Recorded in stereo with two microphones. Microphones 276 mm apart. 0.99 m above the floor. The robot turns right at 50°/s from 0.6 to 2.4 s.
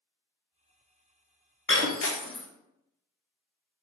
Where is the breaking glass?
45° left (ahead or behind), 0.5 m.